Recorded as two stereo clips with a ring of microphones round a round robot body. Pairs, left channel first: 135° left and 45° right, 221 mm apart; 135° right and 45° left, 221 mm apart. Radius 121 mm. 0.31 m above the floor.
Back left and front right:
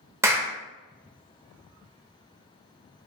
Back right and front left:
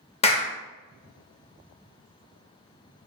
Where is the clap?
110° right, 0.8 m.